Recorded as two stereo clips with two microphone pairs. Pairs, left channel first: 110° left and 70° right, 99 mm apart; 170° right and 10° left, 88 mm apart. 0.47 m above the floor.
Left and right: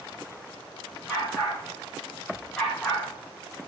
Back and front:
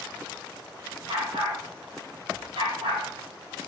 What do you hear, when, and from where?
1.1 s a dog barking: 10° left, 8 m; by 3.0 s 20° left, 10 m